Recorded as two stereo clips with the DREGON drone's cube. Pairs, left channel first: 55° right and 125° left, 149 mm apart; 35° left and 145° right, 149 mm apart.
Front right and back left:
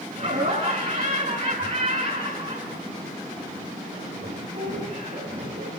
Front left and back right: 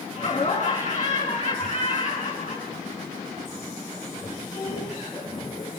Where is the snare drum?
I don't hear a snare drum.